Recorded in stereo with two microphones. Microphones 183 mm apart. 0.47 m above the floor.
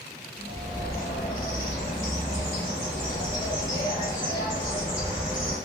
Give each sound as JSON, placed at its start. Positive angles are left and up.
{"t": 0.4, "sound": "a bird", "side_deg": 25, "distance_m": 1.6}